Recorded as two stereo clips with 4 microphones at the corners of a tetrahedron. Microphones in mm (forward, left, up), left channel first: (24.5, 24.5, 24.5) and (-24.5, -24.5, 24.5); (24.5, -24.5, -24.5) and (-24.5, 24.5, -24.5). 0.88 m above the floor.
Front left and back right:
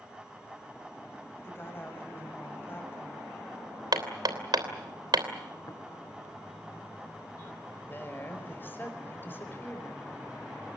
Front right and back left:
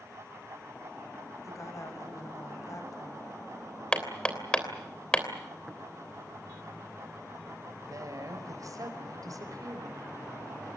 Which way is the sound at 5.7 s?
35° left.